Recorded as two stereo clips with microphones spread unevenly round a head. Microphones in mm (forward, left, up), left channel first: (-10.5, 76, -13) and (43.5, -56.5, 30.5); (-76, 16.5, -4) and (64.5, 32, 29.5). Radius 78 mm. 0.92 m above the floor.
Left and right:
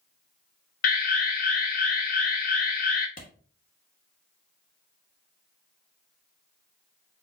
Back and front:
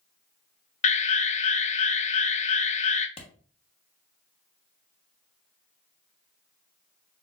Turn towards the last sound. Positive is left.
turn(degrees=140)